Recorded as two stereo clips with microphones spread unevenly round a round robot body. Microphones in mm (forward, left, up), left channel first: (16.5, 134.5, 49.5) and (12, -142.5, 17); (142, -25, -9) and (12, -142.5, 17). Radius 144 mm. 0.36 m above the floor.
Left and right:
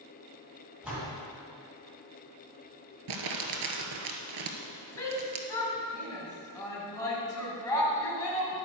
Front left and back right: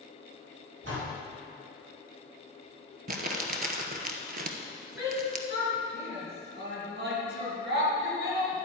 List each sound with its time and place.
0.8 s a door slam: 175° right, 3 m
3.1 s crumpling: 105° right, 1.2 m
5.0 s a shout: 170° left, 2.5 m